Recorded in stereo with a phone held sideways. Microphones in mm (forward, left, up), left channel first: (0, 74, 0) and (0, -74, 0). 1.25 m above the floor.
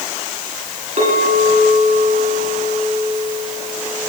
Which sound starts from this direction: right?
A clink, at 1.0 s.